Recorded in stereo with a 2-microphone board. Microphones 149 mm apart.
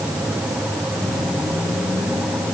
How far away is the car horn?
No car horn in this recording.